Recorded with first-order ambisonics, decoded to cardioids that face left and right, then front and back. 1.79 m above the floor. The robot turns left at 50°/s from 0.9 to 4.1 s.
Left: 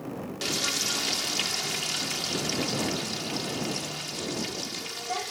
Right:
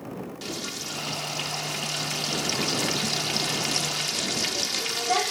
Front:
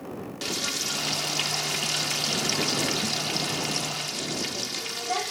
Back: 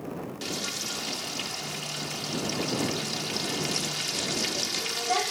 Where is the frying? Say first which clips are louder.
Left 7 dB, front 5 dB; 55° left; by 5.3 s 105° right.